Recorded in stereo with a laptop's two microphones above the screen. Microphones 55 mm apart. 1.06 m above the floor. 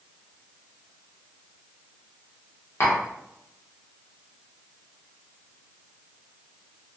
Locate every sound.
2.8 s tapping: 45° left (ahead or behind), 0.9 m